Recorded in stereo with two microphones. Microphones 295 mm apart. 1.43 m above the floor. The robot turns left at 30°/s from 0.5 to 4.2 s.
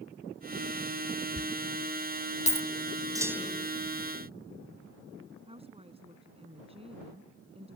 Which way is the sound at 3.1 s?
10° right (ahead or behind).